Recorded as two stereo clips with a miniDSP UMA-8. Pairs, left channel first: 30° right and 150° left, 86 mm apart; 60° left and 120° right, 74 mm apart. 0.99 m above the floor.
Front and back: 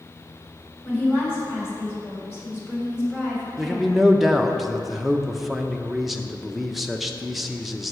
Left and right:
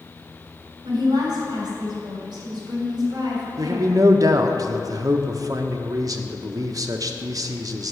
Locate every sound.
0.8 s a woman speaking: 95° right, 3.5 m
3.6 s a man speaking: 120° right, 0.6 m